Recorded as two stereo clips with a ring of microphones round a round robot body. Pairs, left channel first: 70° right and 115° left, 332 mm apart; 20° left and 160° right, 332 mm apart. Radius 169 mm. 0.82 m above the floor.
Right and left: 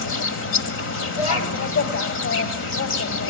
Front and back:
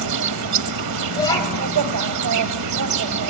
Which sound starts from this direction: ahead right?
A child speaking, at 1.1 s.